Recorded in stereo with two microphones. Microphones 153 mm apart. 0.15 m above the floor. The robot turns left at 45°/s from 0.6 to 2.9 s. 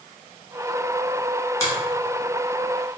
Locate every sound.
1.6 s a finger snap: 20° left (ahead or behind), 1.2 m; by 1.7 s 15° left (ahead or behind), 1.2 m